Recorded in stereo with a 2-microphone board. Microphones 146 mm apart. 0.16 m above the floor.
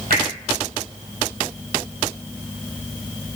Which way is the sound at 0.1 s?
75° right (ahead or behind).